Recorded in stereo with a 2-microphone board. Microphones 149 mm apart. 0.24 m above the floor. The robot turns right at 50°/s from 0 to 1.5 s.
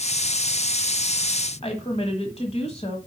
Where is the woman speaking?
40° left (ahead or behind), 1.5 m.